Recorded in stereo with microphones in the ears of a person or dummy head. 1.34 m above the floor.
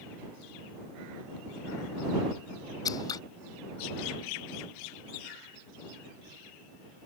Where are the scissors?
20° left (ahead or behind).